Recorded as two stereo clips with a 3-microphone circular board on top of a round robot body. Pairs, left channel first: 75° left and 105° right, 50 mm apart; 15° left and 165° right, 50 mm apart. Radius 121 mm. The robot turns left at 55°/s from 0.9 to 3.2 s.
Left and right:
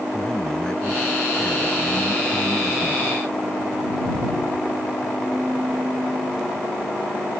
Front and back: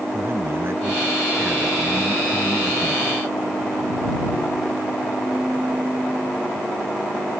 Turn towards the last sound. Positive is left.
turn(degrees=25)